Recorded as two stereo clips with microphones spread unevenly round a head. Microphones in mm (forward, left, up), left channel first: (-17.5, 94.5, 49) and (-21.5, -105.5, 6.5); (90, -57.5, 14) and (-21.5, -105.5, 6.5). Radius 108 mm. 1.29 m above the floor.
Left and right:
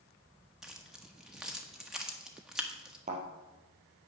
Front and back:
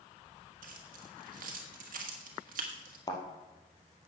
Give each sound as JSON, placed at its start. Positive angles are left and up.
{"t": 0.6, "sound": "keys jangling", "azimuth_deg": 180, "distance_m": 1.4}
{"t": 3.1, "sound": "a thud", "azimuth_deg": -25, "distance_m": 3.0}